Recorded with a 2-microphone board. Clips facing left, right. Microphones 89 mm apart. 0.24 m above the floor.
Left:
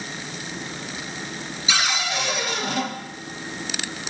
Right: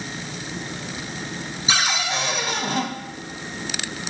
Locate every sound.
1.7 s a cupboard door: 35° right (ahead or behind), 0.7 m